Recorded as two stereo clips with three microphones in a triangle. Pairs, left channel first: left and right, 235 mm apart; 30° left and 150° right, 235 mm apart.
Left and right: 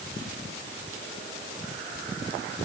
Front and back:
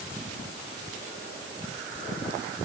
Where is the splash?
No splash in this recording.